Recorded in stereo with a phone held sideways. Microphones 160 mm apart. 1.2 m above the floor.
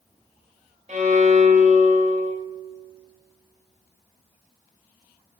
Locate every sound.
0.9 s a violin: 45° right (ahead or behind), 1.3 m